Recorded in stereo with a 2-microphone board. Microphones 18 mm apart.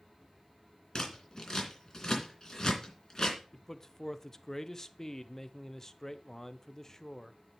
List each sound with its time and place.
0.9 s scissors: 35° left (ahead or behind), 3 m
3.5 s a man speaking: 25° left (ahead or behind), 0.7 m